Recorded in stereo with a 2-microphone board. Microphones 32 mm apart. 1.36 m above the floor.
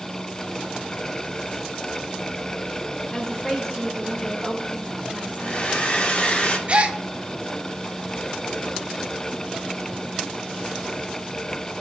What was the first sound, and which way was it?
A woman speaking, 5° left (ahead or behind).